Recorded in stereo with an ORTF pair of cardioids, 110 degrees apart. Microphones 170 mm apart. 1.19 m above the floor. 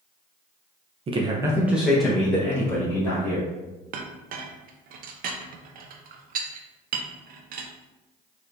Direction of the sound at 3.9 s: 60° right.